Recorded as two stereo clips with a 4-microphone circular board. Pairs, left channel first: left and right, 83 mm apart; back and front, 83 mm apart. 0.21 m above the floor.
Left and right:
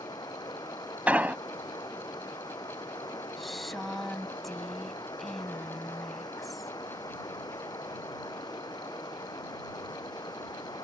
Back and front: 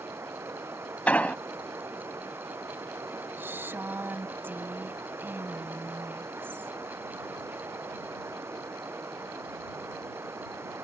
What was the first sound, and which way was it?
Running water, 55° left.